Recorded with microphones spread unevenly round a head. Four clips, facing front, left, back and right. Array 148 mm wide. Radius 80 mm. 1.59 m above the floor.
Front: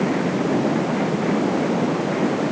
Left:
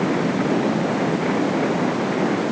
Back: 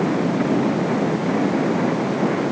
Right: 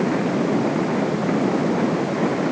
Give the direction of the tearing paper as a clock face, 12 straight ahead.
I don't hear tearing paper.